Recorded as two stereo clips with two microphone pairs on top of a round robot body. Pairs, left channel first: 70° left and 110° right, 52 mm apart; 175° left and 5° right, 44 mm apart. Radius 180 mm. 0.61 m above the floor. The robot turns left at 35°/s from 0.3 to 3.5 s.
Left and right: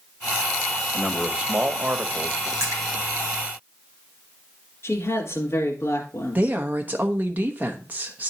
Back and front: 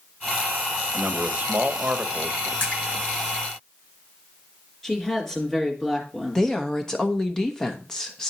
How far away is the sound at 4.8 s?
About 2.5 m.